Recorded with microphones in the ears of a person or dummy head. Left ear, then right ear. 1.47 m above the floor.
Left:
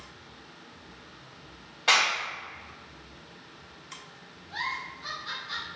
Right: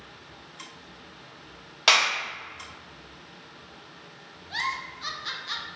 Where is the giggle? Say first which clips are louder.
Right 3 dB; 70° right (ahead or behind), 0.8 m.